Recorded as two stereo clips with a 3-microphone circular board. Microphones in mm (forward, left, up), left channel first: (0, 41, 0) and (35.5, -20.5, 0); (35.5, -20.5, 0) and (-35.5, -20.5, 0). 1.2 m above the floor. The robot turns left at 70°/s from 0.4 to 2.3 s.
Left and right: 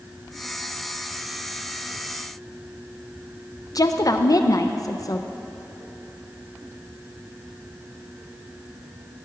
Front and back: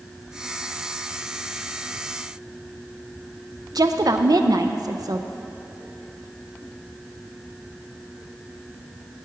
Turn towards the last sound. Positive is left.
turn(degrees=155)